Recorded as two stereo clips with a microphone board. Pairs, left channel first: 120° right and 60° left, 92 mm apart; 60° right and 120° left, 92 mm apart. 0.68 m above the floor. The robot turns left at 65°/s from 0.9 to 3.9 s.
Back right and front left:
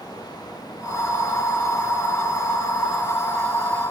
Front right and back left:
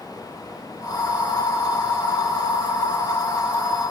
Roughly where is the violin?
I don't hear a violin.